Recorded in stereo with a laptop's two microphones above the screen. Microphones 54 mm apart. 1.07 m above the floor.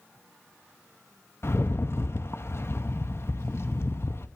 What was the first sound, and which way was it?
A rattle, 50° left (ahead or behind).